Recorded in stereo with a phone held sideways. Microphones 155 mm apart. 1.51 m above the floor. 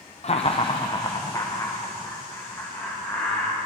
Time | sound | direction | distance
0.2 | laughter | 45° left (ahead or behind) | 0.5 m